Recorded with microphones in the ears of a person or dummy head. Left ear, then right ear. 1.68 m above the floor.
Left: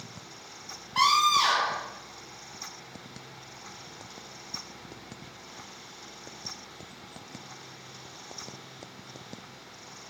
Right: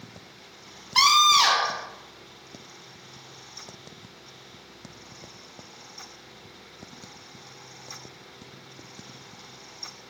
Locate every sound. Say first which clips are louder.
0.9 s a scream: right 4 dB; 85° right, 0.6 m